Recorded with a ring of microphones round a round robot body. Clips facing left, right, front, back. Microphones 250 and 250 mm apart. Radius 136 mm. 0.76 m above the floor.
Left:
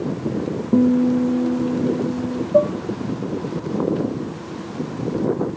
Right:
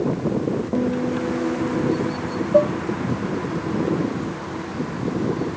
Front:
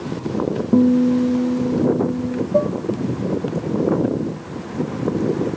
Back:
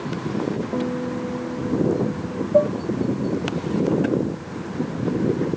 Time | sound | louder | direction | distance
0.7 | a guitar | left 11 dB, front 11 dB | 40° left | ?
2.5 | dishes clattering | even, back 2 dB | 45° right | ?